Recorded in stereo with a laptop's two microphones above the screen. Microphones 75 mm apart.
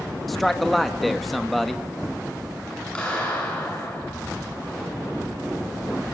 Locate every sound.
0.3 s a man speaking: centre (ahead or behind), 1.1 m
3.0 s a clap: 15° left (ahead or behind), 7.5 m